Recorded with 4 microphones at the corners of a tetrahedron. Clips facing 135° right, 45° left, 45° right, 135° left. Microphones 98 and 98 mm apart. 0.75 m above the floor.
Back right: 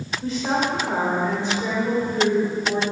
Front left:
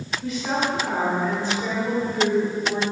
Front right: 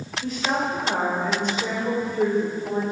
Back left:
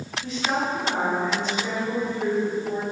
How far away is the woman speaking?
About 3 m.